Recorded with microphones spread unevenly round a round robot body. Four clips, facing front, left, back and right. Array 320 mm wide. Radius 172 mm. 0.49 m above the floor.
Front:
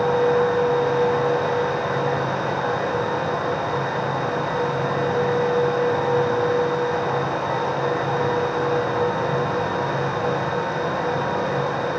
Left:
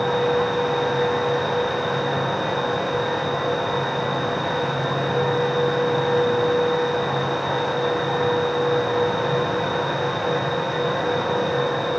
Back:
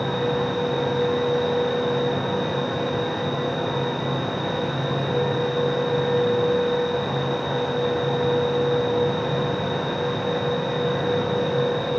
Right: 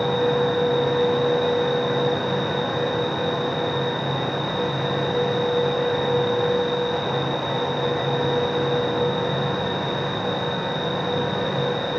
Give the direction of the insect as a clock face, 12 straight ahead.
6 o'clock.